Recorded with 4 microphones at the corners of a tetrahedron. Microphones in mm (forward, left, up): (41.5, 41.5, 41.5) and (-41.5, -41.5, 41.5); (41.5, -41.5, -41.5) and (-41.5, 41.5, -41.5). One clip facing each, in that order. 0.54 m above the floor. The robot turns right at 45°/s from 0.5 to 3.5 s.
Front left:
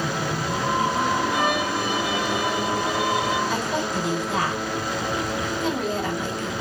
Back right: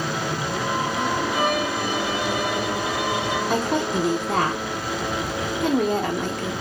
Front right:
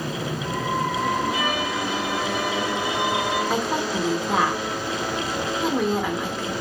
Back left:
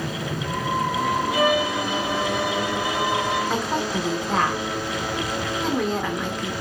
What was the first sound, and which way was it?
A violin, 150° left.